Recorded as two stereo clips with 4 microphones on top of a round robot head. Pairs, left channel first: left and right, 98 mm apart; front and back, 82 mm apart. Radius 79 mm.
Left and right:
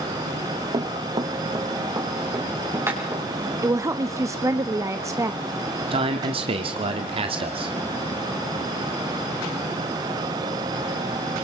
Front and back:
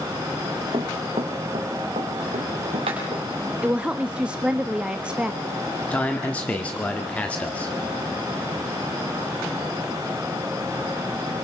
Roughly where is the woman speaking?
Behind right.